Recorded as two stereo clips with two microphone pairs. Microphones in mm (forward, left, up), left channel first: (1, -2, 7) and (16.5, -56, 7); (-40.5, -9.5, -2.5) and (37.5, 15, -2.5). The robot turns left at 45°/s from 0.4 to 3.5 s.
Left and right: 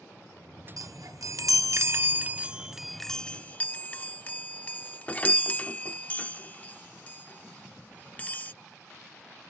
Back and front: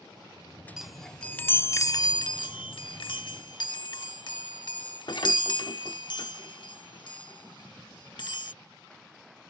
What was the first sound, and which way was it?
A chime, 65° right.